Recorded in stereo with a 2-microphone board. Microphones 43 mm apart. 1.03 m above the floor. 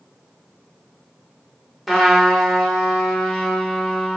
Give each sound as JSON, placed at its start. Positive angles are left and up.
{"t": 1.9, "sound": "a trumpet", "side_deg": -5, "distance_m": 0.8}